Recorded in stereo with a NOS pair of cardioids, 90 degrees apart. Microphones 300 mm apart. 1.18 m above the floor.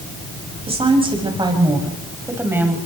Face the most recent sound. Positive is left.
turn(degrees=-5)